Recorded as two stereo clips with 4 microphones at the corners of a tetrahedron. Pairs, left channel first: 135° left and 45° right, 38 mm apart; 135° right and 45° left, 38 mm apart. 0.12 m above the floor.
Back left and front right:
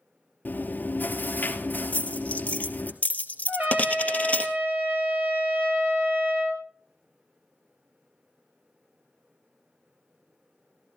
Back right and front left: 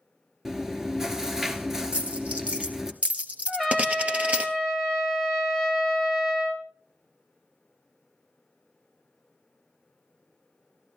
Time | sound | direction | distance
0.5 | chewing | 120° left | 1.2 m
1.9 | a dropped coin | 90° left | 1.4 m
3.5 | a trumpet | 50° right | 3 m